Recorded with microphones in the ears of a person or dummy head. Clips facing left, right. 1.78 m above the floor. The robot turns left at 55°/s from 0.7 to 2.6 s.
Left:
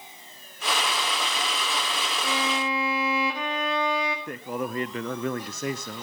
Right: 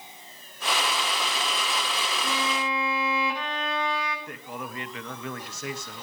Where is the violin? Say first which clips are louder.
Left 2 dB; 55° left (ahead or behind), 2 m; by 4.2 s 75° left (ahead or behind), 2 m.